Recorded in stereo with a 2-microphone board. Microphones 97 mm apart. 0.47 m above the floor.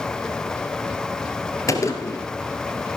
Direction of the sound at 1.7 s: 30° left (ahead or behind).